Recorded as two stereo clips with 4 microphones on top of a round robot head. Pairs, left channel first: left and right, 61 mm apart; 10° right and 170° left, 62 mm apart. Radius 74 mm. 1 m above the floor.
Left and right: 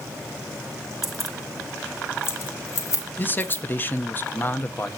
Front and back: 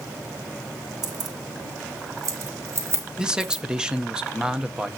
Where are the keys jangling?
175° right, 1.2 m; by 3.6 s 115° left, 3 m.